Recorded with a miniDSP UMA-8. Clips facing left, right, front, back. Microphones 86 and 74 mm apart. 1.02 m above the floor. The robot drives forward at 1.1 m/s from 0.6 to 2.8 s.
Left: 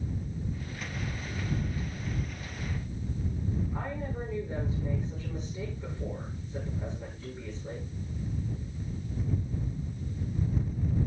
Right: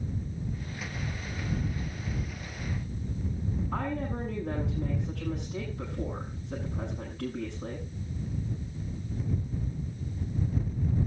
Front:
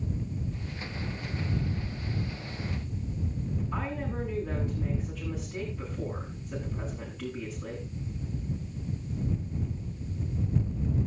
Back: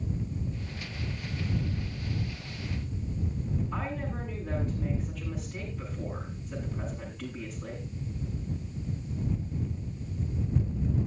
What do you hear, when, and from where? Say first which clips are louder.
3.7 s a woman speaking: right 4 dB, front 1 dB; 85° right, 9.5 m